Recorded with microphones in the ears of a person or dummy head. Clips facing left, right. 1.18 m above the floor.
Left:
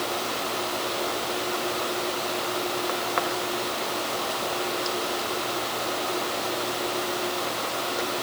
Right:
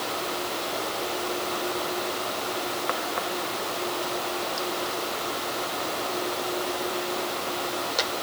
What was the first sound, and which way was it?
Only background noise.